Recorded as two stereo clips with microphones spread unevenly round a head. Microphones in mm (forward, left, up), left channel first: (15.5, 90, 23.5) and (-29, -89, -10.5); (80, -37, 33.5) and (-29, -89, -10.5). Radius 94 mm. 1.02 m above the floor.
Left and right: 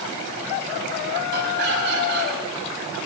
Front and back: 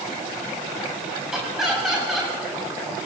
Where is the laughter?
65° right, 7 m.